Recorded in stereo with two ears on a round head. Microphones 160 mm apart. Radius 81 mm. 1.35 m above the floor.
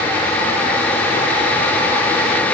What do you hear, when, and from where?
Only background noise.